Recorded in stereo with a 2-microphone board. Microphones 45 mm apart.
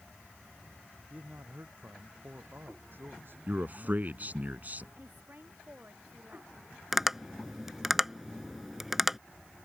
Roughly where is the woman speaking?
Right.